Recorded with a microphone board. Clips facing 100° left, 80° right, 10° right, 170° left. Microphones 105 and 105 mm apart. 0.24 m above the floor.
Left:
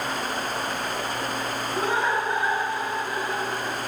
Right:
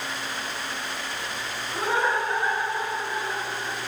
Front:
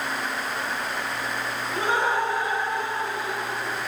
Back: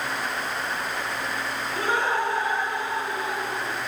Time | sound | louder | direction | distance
1.7 | laughter | even, front 1 dB | 5° left | 1.5 m